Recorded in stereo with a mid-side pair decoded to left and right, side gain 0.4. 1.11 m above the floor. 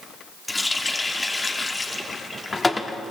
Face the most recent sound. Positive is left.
turn(degrees=20)